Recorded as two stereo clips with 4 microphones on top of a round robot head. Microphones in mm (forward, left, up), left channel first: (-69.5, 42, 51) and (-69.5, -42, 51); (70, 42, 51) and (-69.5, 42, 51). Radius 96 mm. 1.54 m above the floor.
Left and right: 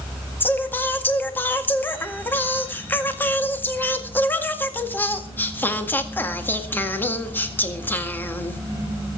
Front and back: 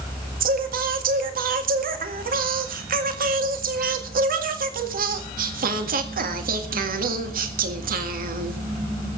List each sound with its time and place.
0.4 s singing: 155° left, 2.0 m